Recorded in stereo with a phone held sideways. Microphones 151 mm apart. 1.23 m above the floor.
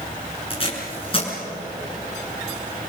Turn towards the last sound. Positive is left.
turn(degrees=35)  # may be behind; listen again after turning